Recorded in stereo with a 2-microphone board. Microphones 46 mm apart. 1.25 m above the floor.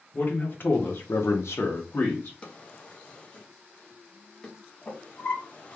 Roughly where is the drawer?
Left.